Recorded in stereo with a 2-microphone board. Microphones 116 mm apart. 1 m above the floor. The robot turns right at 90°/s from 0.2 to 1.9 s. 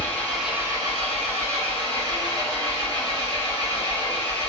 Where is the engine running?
165° left, 1.2 m; by 4.5 s 40° right, 1.2 m.